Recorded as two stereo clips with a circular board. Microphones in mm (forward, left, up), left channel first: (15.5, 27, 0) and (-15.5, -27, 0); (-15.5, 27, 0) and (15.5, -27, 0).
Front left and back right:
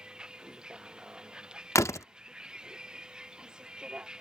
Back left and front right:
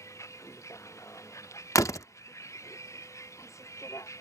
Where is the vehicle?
165° left.